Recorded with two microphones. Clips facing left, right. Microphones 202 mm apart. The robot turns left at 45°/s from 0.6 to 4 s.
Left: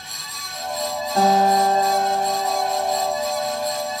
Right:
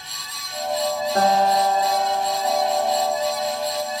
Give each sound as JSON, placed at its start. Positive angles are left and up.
{"t": 1.1, "sound": "a guitar", "azimuth_deg": -125, "distance_m": 5.5}